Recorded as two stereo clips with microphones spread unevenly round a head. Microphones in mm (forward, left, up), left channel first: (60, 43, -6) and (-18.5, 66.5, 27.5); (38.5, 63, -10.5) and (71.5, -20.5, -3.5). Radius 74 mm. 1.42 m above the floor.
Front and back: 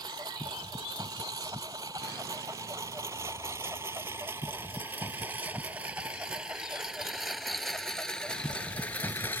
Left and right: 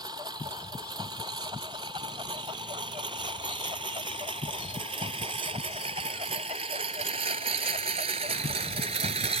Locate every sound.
0.0 s a lawn mower: 135° right; by 9.4 s 95° right